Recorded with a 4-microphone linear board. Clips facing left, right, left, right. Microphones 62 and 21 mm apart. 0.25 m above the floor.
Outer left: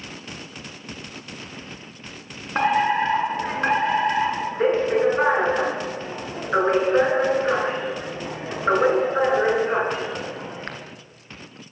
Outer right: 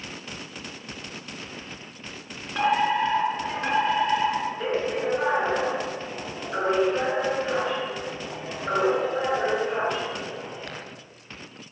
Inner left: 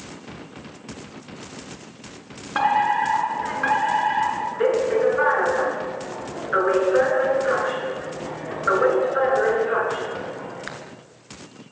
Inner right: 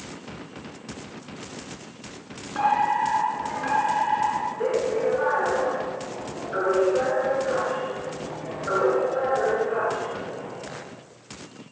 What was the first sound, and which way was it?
A fire alarm, 45° left (ahead or behind).